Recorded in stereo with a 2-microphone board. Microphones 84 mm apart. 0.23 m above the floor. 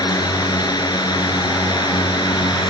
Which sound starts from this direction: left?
A drone, at 0.0 s.